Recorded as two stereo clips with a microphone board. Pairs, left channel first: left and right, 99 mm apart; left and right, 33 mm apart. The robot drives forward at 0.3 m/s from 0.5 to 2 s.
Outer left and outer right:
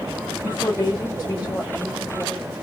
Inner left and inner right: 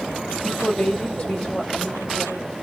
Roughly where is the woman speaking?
Left.